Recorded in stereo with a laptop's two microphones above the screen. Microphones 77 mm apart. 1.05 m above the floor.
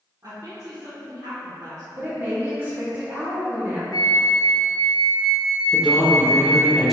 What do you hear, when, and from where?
0.2 s a woman speaking: 55° right (ahead or behind), 1.2 m
1.9 s a woman speaking: 25° right (ahead or behind), 1.7 m
3.9 s a flute: 70° left (ahead or behind), 0.6 m
5.7 s a man speaking: 5° right (ahead or behind), 0.9 m